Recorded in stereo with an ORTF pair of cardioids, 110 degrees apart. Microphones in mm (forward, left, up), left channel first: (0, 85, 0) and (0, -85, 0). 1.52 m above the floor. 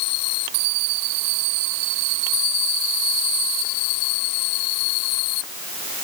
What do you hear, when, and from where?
Only background noise.